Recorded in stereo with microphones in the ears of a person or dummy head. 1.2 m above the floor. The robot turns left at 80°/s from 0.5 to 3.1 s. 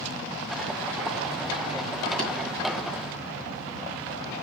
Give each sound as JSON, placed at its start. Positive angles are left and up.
{"t": 2.2, "sound": "tapping", "side_deg": -40, "distance_m": 4.0}